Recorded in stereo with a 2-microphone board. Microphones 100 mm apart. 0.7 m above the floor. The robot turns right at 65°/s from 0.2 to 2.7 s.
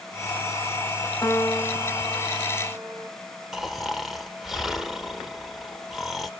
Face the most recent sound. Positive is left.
turn(degrees=0)  # may be behind; listen again after turning